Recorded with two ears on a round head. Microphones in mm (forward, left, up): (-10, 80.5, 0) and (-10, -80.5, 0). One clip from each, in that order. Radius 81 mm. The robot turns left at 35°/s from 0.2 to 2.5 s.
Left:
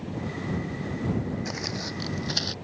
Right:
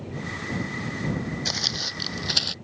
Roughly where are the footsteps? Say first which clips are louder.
Right 7 dB; right.